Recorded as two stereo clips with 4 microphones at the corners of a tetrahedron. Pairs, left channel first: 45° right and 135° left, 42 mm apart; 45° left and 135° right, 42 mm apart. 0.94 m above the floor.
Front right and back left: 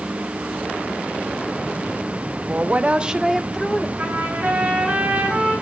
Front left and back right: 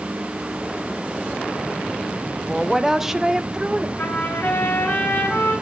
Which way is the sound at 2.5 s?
140° left.